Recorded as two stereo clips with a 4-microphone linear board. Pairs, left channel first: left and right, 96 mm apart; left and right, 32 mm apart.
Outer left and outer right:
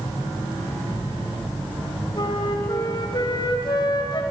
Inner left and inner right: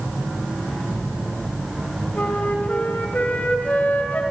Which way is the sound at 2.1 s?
55° left (ahead or behind).